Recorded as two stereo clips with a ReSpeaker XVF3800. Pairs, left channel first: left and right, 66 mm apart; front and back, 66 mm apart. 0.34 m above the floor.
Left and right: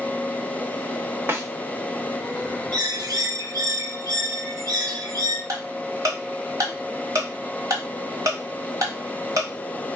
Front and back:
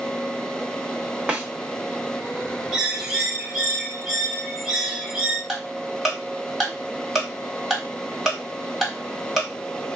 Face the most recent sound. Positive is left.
turn(degrees=-95)